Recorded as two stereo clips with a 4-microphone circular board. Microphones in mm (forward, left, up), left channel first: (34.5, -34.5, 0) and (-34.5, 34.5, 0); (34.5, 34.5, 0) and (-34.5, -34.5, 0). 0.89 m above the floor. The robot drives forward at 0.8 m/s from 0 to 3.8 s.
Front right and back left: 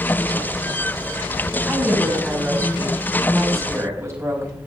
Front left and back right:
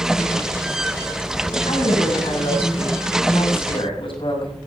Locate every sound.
1.7 s a woman speaking: 55° left, 6 m; by 4.6 s 75° left, 5 m